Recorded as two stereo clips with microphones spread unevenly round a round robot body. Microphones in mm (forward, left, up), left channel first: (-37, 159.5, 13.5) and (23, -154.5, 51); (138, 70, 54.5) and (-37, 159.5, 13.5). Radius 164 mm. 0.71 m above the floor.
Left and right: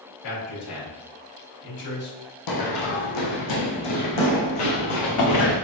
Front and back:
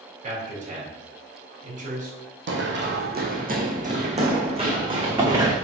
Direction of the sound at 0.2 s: 100° left.